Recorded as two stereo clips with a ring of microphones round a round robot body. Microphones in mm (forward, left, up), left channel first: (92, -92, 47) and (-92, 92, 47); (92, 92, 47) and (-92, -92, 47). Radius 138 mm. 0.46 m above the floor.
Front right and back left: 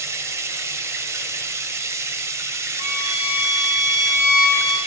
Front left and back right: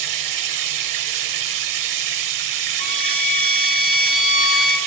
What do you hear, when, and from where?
0.0 s running water: 145° right, 0.8 m
2.8 s a violin: 20° right, 5 m